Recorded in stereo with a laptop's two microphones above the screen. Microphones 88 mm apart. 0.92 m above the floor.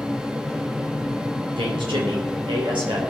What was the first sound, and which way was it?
A fan, 10° right (ahead or behind).